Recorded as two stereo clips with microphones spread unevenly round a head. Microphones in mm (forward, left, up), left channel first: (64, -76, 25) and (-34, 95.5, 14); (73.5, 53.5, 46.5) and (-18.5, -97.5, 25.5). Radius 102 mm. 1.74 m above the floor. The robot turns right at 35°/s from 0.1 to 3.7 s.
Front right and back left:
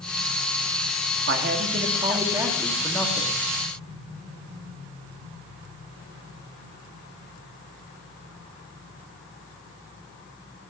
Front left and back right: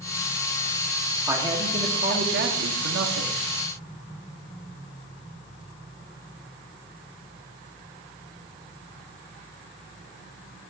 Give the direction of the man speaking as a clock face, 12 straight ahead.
7 o'clock.